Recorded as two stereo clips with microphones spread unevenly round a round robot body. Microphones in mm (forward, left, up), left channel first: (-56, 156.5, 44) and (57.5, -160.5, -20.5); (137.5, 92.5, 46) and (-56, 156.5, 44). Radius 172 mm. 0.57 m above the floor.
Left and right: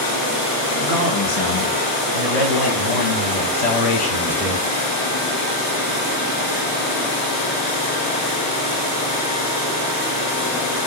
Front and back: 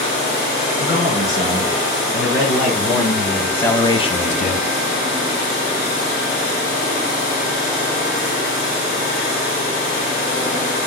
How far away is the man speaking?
About 3 m.